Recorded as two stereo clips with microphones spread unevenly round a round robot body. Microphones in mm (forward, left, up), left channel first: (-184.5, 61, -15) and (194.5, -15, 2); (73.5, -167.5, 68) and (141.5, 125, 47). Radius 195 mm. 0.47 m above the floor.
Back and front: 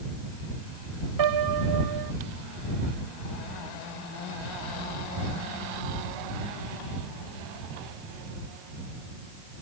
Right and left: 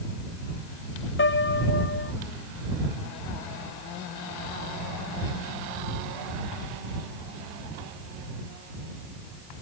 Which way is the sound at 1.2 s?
50° right.